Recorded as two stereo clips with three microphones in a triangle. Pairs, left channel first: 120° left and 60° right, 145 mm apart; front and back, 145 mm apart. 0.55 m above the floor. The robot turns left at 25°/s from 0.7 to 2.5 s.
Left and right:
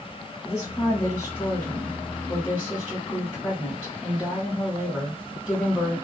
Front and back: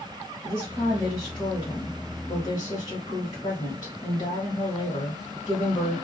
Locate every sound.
0.4 s a woman speaking: 75° left, 1.3 m; by 6.0 s 30° left, 1.3 m